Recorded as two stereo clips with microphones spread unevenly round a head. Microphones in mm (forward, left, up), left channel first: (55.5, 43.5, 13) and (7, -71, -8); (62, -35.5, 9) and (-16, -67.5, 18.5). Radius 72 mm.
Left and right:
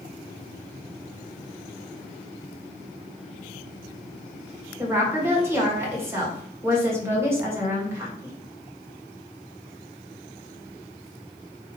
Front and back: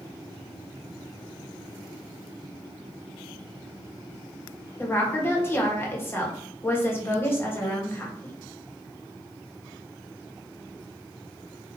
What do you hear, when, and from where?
4.8 s a woman speaking: 40° right, 1.3 m